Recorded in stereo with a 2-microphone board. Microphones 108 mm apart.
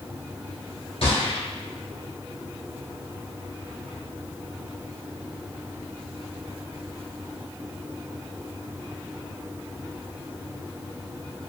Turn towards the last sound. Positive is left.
turn(degrees=70)  # may be behind; listen again after turning